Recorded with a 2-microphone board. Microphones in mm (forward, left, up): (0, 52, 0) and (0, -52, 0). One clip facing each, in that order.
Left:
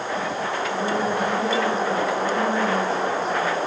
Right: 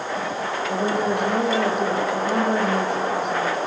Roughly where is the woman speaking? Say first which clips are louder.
Right 3 dB; right.